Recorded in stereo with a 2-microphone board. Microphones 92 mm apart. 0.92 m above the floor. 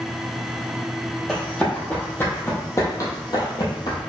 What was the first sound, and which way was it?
Running footsteps, 5° left (ahead or behind).